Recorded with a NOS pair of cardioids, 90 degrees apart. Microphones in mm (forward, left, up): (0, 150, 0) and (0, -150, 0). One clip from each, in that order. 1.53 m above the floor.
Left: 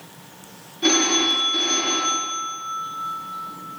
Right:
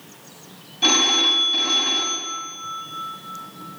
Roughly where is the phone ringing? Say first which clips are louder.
Right 2 dB; right.